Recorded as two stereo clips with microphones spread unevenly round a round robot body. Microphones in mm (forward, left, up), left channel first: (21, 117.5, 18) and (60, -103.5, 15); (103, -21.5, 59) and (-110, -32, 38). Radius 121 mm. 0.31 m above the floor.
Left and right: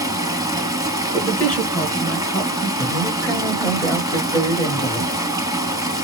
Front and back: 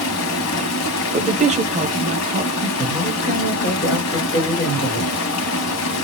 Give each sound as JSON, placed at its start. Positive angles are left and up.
{"t": 0.0, "sound": "running water", "azimuth_deg": -5, "distance_m": 0.7}
{"t": 1.1, "sound": "a woman speaking", "azimuth_deg": 180, "distance_m": 1.0}
{"t": 2.8, "sound": "a woman speaking", "azimuth_deg": 10, "distance_m": 1.6}